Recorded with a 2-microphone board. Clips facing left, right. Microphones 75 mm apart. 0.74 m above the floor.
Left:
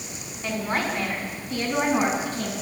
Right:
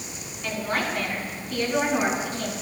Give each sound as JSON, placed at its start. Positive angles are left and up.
{"t": 0.4, "sound": "a woman speaking", "side_deg": 25, "distance_m": 7.5}